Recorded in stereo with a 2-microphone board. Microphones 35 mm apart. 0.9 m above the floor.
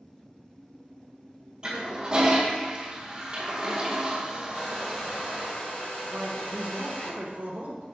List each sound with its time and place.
1.6 s a toilet flushing: 25° right (ahead or behind), 0.5 m
4.5 s a hair dryer: 70° left (ahead or behind), 0.9 m
6.1 s a man speaking: 50° right (ahead or behind), 0.6 m